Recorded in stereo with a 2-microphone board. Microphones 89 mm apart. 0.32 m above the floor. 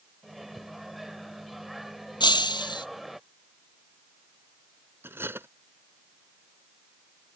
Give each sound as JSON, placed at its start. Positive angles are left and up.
{"t": 0.2, "sound": "a microwave", "side_deg": 0}
{"t": 2.2, "sound": "breaking glass", "side_deg": 55}
{"t": 5.0, "sound": "cutlery clinking", "side_deg": -25}